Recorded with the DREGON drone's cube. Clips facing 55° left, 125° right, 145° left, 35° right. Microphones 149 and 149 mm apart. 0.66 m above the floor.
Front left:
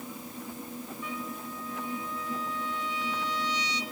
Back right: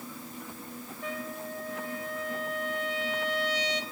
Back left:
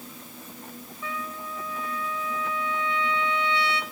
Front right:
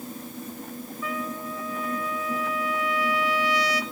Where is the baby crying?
No baby crying in this recording.